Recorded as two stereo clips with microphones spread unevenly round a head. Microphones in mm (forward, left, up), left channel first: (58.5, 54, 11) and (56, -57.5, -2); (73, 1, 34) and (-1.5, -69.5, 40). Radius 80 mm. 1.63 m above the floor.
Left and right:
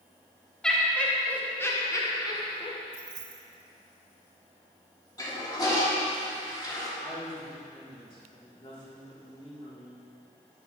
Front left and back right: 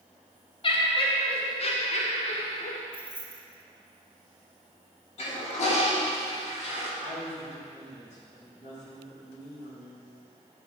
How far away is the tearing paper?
I don't hear tearing paper.